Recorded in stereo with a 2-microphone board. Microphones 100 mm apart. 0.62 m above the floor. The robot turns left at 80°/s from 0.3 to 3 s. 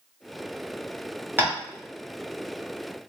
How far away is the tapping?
About 1.5 m.